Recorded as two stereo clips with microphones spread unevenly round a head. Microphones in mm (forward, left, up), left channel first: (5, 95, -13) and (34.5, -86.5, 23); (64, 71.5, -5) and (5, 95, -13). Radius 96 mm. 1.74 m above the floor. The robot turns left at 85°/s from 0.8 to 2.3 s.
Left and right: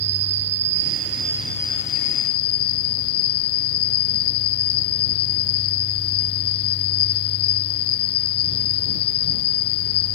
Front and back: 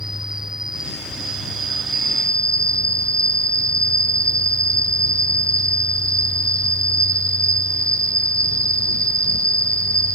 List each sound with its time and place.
0.0 s an insect: 115° right; by 10.2 s 120° left